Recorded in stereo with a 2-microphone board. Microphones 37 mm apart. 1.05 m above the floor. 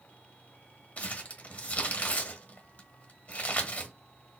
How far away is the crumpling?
About 1.1 m.